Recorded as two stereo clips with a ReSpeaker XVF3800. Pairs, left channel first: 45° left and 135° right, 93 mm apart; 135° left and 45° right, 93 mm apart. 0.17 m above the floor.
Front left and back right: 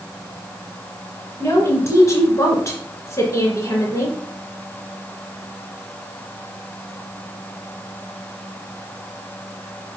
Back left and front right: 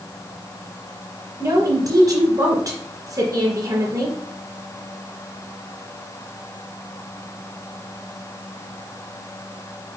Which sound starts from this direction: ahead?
A woman speaking, at 1.4 s.